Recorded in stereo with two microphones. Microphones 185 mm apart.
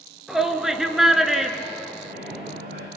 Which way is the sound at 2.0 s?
60° right (ahead or behind).